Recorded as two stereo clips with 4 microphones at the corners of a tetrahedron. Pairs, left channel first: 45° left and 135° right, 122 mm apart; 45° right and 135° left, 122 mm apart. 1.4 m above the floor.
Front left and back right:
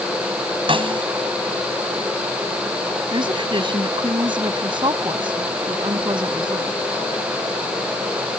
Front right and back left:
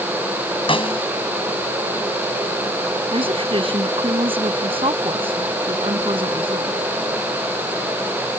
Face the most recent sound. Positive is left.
turn(degrees=175)